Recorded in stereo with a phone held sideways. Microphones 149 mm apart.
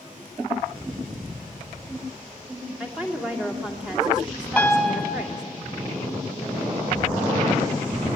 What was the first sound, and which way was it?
A woman speaking, 5° right (ahead or behind).